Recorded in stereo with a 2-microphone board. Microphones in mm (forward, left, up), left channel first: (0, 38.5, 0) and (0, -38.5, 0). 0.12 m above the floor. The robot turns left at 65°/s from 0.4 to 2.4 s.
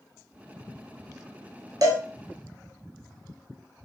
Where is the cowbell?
55° right (ahead or behind), 0.7 m; by 2.0 s 50° right (ahead or behind), 0.7 m.